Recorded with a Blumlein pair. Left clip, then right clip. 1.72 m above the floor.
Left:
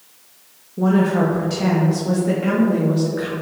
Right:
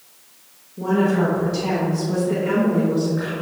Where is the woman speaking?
70° left, 2 m; by 3.3 s 10° left, 3.5 m.